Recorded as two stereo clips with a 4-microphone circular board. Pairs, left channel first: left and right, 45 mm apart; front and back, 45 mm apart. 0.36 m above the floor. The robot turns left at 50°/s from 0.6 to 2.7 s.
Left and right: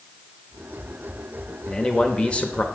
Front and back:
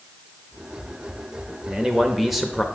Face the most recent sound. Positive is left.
turn(degrees=80)